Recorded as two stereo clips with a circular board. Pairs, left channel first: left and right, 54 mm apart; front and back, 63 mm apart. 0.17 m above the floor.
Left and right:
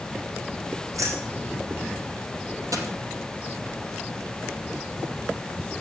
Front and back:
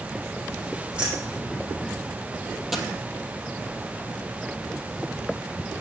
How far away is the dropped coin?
About 2 m.